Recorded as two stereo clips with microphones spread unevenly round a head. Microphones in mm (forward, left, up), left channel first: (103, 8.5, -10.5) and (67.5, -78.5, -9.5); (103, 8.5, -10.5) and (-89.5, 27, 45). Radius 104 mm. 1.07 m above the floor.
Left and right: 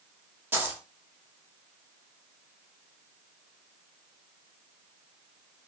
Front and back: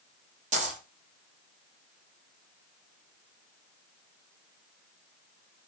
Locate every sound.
0.5 s a dropped coin: straight behind, 0.7 m